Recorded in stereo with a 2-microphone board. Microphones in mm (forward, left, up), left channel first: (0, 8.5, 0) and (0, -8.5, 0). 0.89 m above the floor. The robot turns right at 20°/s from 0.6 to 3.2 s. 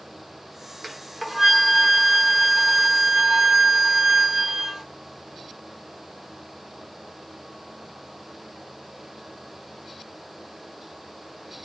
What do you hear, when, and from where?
0.8 s a flute: straight behind, 1.1 m; by 4.8 s 135° right, 1.1 m